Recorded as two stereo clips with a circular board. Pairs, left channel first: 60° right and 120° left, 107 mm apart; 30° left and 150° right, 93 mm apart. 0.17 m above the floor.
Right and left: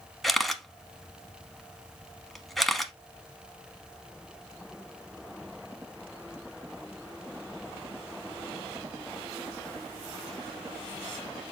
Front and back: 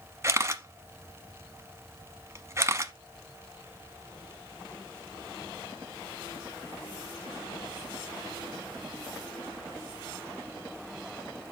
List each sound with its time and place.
0.2 s a camera shutter: 145° right, 0.8 m